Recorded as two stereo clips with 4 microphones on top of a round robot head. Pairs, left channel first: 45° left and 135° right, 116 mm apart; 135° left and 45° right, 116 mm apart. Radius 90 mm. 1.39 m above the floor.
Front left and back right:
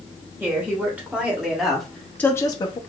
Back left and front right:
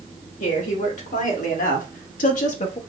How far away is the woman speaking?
About 1.6 m.